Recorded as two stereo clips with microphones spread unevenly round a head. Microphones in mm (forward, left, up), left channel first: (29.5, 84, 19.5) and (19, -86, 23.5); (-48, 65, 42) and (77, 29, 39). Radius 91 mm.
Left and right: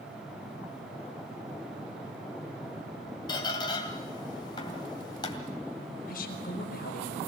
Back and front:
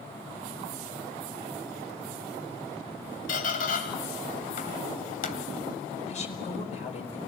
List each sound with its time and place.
3.3 s a squeak: 155° left, 2.5 m
6.1 s a woman speaking: 130° left, 4.5 m